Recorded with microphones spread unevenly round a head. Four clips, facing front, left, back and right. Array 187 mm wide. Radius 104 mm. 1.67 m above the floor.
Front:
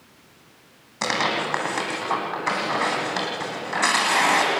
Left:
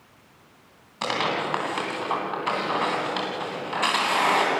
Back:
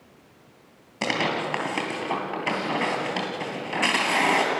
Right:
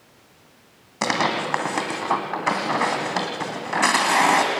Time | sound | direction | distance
1.0 | tearing paper | 125° right | 2.5 m